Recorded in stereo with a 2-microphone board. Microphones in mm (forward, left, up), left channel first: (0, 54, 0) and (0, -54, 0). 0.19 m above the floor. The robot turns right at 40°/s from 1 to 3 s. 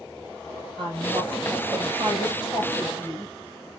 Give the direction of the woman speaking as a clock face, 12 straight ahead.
10 o'clock.